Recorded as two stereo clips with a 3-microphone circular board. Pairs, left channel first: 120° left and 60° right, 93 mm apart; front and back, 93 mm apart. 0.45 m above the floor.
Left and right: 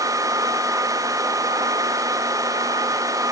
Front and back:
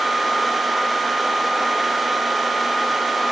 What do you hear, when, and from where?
Only background noise.